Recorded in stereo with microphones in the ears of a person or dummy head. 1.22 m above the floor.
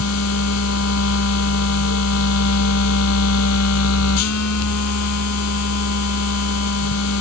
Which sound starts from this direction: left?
A machine running, at 0.0 s.